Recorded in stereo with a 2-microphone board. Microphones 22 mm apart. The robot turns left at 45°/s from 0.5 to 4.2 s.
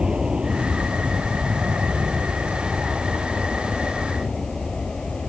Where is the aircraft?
40° right; by 5.3 s 155° left.